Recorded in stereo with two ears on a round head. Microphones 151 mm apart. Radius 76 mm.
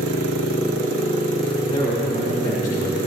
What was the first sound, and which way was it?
A man speaking, 40° left (ahead or behind).